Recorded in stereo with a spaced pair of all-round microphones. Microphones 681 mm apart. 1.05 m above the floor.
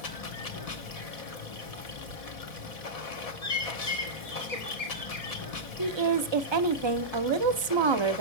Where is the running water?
55° left (ahead or behind), 0.8 m.